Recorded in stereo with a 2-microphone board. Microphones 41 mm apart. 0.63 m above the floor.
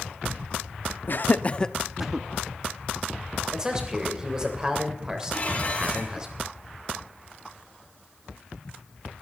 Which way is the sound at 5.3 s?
35° left (ahead or behind).